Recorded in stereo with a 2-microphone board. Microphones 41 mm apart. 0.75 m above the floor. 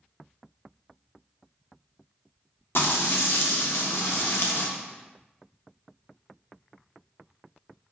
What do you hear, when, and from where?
2.8 s frying: 65° left (ahead or behind), 0.5 m